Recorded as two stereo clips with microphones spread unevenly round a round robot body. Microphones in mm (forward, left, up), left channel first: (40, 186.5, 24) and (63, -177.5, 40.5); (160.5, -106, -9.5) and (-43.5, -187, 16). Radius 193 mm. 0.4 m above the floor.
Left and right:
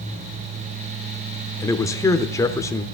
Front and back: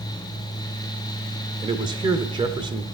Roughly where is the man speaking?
Behind left.